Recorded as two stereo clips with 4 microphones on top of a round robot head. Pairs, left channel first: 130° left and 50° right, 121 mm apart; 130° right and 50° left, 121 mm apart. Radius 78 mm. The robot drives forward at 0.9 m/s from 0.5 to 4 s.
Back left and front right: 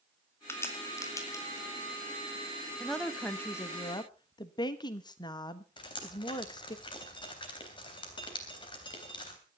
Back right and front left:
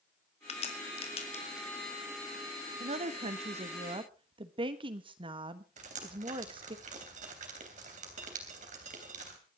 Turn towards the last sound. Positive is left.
turn(degrees=80)